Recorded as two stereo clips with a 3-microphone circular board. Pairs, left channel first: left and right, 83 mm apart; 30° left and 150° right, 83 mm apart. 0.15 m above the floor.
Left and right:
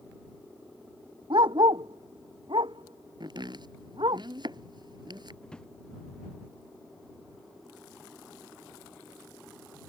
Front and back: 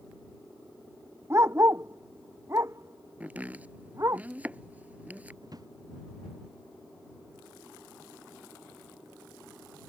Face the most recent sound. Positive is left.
turn(degrees=170)